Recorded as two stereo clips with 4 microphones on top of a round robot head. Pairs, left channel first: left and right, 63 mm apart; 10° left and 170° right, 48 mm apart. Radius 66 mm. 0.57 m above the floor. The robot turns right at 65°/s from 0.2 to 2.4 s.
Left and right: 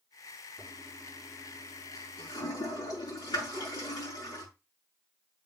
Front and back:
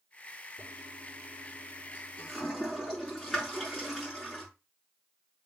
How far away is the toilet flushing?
About 5.5 m.